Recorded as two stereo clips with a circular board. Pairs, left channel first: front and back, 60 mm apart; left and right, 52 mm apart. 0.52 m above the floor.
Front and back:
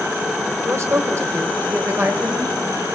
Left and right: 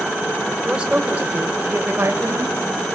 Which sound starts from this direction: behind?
A woman speaking, at 0.7 s.